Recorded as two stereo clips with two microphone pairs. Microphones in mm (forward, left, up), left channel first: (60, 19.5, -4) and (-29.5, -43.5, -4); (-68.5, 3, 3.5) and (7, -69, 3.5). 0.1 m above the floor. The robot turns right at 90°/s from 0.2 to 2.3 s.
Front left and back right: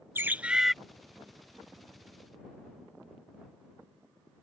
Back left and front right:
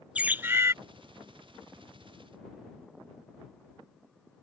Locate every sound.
0.1 s a bird: 105° right; by 0.8 s 55° right